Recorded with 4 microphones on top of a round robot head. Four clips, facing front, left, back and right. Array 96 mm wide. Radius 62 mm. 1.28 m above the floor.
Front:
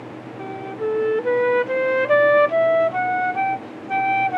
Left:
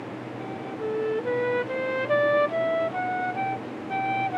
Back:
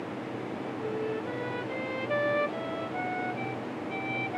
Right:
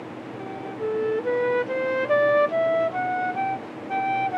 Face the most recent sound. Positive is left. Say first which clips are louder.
# right 3 dB, front 12 dB
turn(degrees=-10)